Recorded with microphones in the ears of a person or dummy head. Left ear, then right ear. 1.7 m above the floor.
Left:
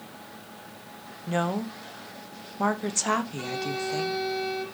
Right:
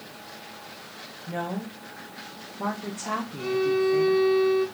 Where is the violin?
65° left (ahead or behind), 4.5 m.